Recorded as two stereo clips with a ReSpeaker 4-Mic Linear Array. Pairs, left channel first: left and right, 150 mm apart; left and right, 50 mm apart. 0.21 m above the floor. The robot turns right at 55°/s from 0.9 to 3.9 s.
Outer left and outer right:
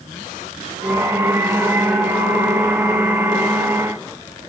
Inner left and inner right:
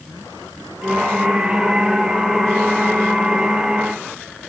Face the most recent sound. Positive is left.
No sound to turn to.